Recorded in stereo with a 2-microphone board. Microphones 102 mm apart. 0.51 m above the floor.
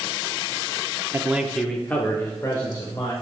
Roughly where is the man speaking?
Right.